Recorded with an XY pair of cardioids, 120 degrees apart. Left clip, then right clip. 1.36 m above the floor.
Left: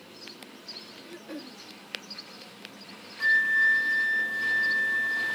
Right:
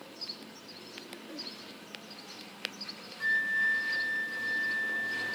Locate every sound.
1.0 s throat clearing: 40° left
3.2 s a flute: 30° left